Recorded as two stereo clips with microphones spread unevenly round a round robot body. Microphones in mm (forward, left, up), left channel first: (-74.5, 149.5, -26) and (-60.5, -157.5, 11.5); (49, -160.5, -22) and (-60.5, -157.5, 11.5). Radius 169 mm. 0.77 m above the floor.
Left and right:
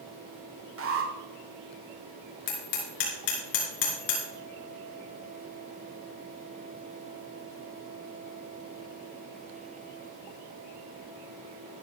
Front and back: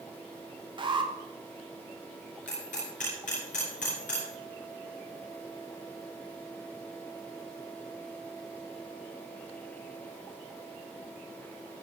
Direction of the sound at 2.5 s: 55° left.